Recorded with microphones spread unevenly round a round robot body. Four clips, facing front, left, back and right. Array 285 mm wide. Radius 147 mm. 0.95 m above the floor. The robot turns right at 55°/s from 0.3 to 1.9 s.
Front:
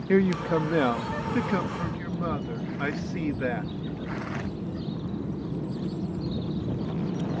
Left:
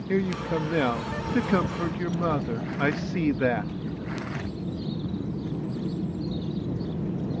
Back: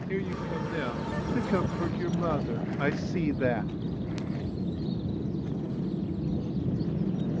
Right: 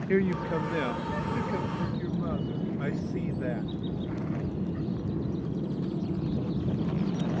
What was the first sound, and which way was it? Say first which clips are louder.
A man speaking: left 1 dB, front 10 dB; straight ahead.